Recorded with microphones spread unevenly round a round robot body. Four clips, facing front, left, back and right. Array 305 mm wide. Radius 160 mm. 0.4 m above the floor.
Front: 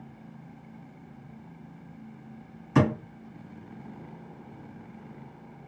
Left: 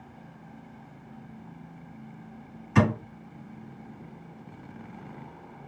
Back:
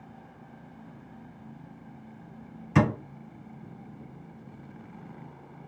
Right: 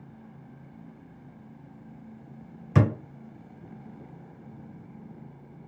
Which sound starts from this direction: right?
A thud, at 2.8 s.